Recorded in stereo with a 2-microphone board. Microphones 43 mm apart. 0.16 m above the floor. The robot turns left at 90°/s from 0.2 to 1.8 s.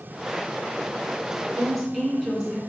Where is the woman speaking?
10° left (ahead or behind), 1.2 m; by 2.6 s 5° right (ahead or behind), 1.2 m.